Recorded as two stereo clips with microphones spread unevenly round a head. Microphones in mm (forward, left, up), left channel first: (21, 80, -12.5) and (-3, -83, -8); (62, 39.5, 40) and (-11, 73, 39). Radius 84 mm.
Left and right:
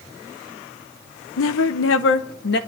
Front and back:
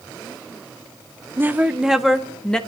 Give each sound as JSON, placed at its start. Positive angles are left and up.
{"t": 1.4, "sound": "a woman speaking", "azimuth_deg": 95, "distance_m": 1.0}